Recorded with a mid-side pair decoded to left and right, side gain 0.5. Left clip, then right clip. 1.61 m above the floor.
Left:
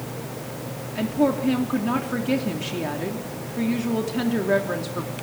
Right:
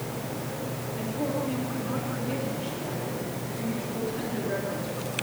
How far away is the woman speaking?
About 3 m.